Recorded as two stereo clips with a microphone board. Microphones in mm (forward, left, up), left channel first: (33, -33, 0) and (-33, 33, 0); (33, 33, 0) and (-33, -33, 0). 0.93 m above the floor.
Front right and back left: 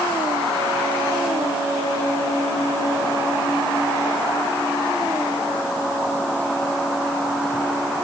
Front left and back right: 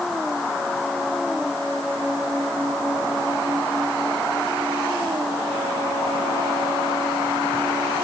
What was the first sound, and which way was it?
Only background noise.